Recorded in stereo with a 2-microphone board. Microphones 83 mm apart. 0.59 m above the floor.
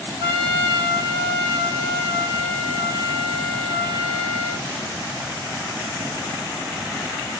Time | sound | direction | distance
0.2 | a trumpet | 60° right (ahead or behind) | 1.7 m